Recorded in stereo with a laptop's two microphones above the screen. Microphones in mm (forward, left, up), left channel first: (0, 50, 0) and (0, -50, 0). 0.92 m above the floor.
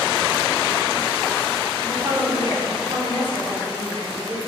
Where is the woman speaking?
55° right (ahead or behind), 3.5 m.